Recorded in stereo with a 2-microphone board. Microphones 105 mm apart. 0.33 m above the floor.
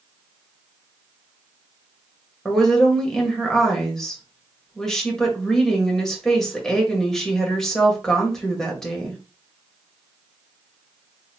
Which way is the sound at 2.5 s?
5° left (ahead or behind).